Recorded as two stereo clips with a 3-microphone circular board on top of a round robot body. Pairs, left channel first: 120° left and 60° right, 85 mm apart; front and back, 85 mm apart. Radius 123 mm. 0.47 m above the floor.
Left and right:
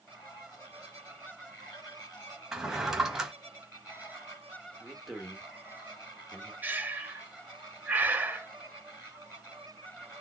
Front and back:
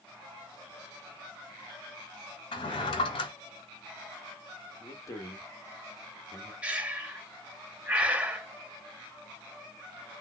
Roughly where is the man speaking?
Ahead left.